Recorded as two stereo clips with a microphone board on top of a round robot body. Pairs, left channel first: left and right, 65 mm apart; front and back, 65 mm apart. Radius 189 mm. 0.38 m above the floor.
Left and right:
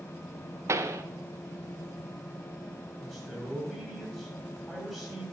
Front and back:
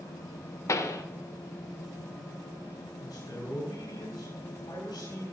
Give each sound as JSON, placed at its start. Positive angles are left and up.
{"t": 0.7, "sound": "a pop", "azimuth_deg": -40, "distance_m": 0.7}
{"t": 3.0, "sound": "a man speaking", "azimuth_deg": 5, "distance_m": 6.5}